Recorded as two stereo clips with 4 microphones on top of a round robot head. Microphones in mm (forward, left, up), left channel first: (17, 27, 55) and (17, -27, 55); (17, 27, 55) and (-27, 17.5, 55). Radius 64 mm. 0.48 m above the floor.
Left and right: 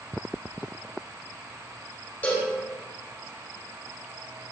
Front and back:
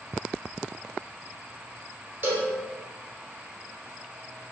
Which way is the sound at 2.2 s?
150° left.